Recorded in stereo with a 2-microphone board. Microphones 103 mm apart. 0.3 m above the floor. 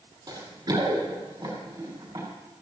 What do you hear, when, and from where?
0.3 s running footsteps: 40° right (ahead or behind), 6.5 m; by 2.3 s 25° right (ahead or behind), 7.5 m